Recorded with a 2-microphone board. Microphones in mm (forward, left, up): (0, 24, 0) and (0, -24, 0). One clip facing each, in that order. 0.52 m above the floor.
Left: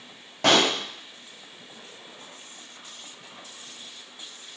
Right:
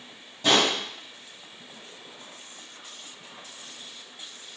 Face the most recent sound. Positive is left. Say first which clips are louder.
# left 2 dB
turn(degrees=70)  # may be behind; listen again after turning